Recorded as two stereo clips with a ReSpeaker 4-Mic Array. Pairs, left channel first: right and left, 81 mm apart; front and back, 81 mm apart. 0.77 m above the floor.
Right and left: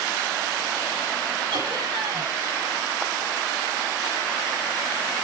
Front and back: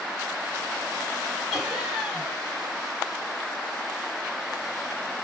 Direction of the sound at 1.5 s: 90° left.